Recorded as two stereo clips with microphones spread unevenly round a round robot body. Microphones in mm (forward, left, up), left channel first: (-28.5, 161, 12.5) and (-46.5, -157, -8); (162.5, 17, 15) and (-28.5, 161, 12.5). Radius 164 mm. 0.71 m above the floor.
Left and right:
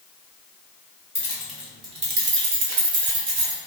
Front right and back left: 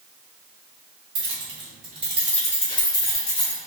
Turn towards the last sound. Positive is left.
turn(degrees=-65)